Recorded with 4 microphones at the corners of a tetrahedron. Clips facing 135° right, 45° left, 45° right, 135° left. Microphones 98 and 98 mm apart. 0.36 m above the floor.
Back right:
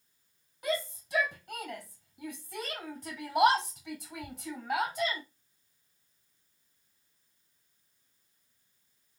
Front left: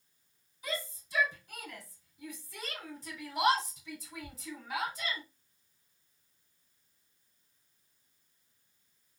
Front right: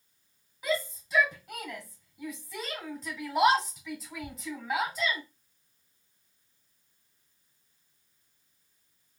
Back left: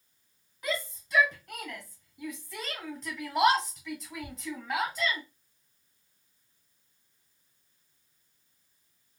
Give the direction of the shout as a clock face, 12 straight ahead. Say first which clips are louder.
Back right 6 dB, front right 3 dB; 4 o'clock.